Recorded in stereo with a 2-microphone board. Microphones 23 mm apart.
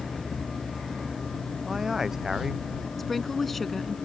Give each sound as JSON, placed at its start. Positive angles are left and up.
{"t": 1.6, "sound": "a man speaking", "side_deg": -20}
{"t": 3.0, "sound": "a woman speaking", "side_deg": 5}